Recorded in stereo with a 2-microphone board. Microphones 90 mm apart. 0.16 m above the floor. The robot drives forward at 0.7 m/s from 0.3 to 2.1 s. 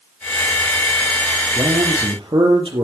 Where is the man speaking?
65° right (ahead or behind), 4.5 m; by 2.9 s 70° right (ahead or behind), 4.5 m.